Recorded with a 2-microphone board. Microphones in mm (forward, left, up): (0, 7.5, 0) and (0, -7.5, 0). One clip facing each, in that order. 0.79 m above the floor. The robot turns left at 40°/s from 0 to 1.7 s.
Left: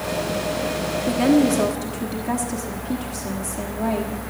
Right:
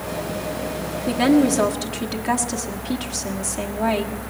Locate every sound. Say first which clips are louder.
1.1 s a woman speaking: right 1 dB; 15° right (ahead or behind), 1.3 m; by 4.1 s 35° right (ahead or behind), 1.3 m